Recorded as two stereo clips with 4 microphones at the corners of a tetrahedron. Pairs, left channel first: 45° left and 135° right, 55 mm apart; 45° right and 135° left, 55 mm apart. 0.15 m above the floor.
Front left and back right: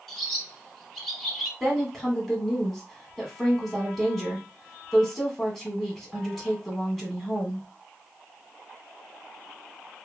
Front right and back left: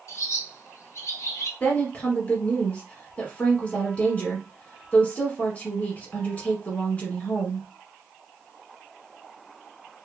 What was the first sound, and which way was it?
A bird, 35° right.